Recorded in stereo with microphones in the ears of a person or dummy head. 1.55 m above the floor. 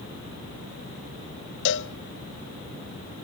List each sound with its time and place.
1.6 s a cowbell: 65° left (ahead or behind), 0.8 m